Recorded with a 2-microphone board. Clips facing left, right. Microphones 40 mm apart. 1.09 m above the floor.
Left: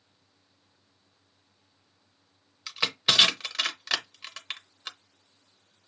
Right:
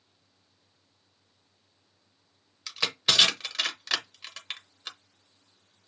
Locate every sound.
2.7 s crushing: 10° left (ahead or behind), 0.8 m